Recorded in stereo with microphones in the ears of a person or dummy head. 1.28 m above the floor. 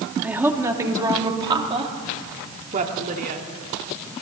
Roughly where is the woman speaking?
Centre.